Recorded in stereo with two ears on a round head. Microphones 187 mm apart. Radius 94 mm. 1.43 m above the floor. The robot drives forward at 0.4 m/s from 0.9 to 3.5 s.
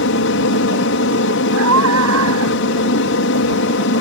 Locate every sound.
0.0 s an aircraft: 65° left (ahead or behind)
1.5 s a scream: 80° right